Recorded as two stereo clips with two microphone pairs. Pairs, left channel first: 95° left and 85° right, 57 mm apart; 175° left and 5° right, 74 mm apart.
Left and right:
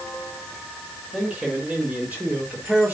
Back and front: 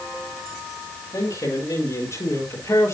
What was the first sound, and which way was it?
A man speaking, 155° right.